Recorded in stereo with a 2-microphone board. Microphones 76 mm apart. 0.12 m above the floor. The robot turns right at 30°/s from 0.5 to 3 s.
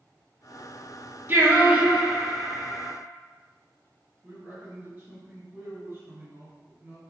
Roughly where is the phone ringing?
I don't hear a phone ringing.